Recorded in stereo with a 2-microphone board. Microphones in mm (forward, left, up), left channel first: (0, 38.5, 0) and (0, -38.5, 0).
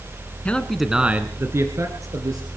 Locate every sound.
0.5 s a man speaking: 15° left (ahead or behind), 1.5 m; by 2.5 s 55° right (ahead or behind), 3 m